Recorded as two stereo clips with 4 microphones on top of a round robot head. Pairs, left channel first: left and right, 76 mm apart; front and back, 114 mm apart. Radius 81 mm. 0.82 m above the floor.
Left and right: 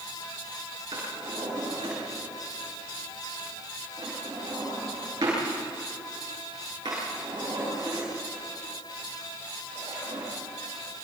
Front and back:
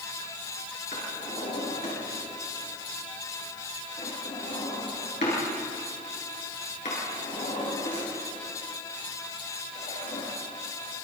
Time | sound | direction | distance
0.9 | a drawer | 45° right | 8.5 m